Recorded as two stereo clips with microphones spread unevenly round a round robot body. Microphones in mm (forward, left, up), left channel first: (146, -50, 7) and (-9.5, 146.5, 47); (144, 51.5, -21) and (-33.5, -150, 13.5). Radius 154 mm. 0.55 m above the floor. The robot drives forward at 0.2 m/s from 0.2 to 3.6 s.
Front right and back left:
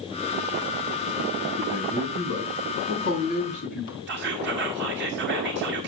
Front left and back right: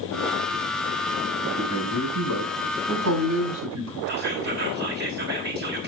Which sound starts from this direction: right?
A man speaking, at 1.6 s.